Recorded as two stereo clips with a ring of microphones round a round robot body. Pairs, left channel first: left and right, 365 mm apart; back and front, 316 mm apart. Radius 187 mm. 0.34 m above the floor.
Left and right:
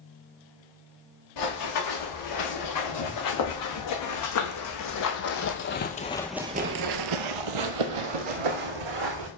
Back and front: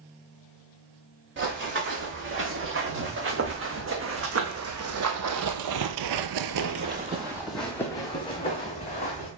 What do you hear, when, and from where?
1.4 s running footsteps: 55° left, 3.5 m; by 9.3 s 110° right, 1.9 m